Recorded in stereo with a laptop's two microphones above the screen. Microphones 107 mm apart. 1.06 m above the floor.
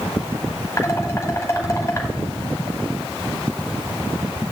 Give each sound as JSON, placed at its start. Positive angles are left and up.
{"t": 0.8, "sound": "dishes clattering", "side_deg": 25, "distance_m": 5.5}